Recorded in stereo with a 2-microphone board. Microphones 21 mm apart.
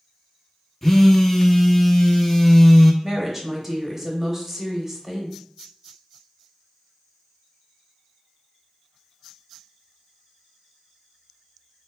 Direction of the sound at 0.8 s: 10° left (ahead or behind).